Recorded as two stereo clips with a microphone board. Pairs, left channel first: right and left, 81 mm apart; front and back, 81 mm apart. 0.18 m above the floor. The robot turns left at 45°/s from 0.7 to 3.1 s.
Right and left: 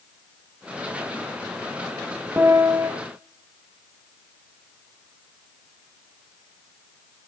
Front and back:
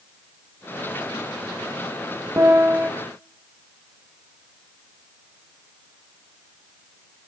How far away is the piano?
About 1.1 m.